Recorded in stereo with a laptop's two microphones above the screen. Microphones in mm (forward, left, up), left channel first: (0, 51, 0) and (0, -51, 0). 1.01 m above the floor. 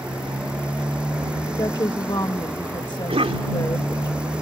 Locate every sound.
0.0 s a motorcycle: 10° right (ahead or behind)
1.5 s a woman speaking: 45° left (ahead or behind)
3.1 s a cough: 70° right (ahead or behind)